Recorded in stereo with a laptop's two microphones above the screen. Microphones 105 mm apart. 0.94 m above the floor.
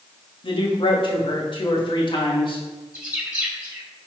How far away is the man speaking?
About 1.7 m.